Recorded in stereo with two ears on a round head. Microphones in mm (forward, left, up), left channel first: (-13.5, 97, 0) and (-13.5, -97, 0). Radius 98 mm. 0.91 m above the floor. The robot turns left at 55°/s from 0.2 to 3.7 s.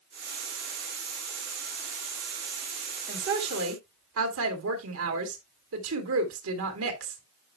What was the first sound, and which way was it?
A woman speaking, 45° right.